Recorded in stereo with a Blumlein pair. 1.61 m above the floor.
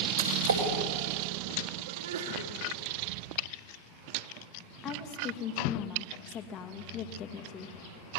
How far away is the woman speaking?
About 2 m.